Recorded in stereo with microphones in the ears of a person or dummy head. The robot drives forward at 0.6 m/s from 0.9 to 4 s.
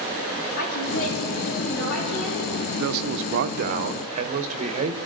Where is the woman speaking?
75° left (ahead or behind), 3.5 m; by 2.5 s 85° left, 3.5 m.